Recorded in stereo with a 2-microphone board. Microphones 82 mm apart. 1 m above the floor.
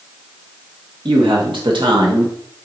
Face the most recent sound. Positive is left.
turn(degrees=-70)  # may be behind; listen again after turning